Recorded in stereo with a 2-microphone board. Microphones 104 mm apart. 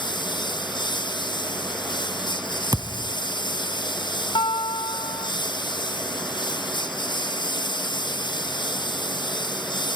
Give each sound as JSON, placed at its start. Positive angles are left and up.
{"t": 0.0, "sound": "a lawn mower", "side_deg": 45}
{"t": 2.7, "sound": "a thud", "side_deg": -35}
{"t": 4.3, "sound": "a guitar", "side_deg": 55}